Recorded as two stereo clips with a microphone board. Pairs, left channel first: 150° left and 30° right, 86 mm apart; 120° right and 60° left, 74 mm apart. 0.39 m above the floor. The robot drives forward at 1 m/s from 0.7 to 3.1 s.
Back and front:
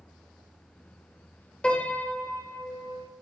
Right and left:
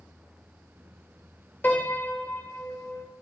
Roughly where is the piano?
Behind right.